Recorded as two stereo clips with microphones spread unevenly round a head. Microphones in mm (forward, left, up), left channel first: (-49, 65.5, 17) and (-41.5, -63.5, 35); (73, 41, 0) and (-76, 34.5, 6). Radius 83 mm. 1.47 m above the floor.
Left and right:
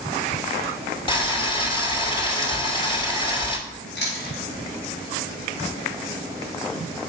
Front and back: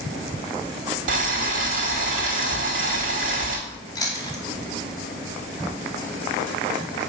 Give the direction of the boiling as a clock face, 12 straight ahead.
7 o'clock.